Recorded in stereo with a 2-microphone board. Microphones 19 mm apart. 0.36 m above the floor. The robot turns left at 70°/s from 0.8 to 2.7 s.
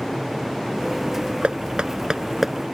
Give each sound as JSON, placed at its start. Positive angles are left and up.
{"t": 1.4, "sound": "knocking", "side_deg": -80}